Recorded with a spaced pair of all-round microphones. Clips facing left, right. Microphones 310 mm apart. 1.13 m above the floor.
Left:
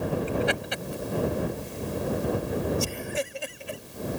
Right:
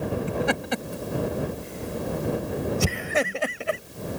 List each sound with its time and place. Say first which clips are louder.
0.3 s laughter: right 2 dB; 55° right (ahead or behind); by 3.8 s 85° right